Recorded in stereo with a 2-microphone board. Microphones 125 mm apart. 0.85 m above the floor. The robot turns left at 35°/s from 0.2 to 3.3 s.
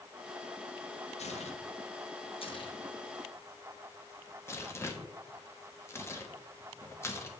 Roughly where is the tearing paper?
Left.